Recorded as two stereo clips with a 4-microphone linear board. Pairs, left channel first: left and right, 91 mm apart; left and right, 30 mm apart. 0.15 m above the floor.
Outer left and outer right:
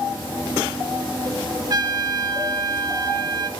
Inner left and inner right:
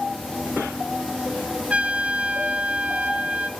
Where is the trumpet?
50° right (ahead or behind), 0.5 m.